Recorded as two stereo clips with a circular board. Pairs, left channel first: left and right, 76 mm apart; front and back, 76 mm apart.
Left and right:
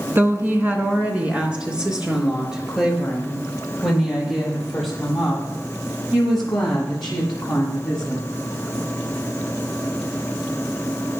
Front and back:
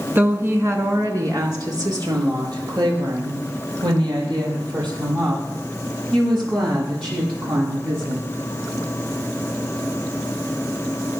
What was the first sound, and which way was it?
A woman speaking, 130° right.